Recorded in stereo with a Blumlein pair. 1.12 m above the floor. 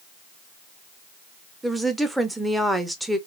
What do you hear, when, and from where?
1.6 s a woman speaking: 5° right, 0.6 m